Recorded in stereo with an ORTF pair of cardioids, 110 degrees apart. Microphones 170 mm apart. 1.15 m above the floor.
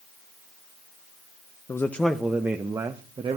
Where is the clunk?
No clunk in this recording.